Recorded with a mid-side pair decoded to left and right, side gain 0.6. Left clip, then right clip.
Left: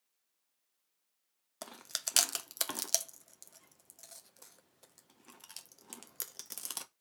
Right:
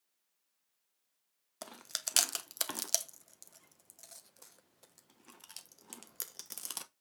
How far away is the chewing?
About 0.9 m.